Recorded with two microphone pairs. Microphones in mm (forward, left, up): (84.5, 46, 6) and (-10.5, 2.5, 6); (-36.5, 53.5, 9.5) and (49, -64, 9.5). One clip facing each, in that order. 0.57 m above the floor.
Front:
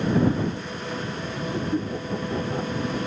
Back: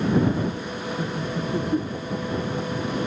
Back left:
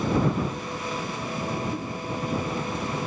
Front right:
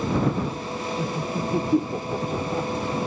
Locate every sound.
1.0 s laughter: 85° right; by 2.7 s 15° right